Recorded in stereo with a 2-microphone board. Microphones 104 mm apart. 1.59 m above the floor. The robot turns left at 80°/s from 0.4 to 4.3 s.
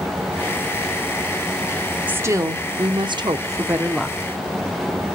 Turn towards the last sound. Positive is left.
turn(degrees=160)